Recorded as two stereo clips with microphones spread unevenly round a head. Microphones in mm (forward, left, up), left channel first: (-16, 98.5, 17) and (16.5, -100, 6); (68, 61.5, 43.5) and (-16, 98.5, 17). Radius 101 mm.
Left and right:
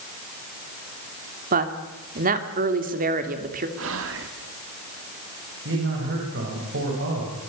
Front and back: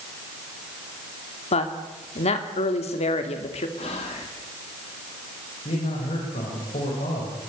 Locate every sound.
1.5 s a woman speaking: 30° right, 2.5 m
3.8 s whispering: 65° right, 1.8 m
5.7 s a man speaking: 45° right, 6 m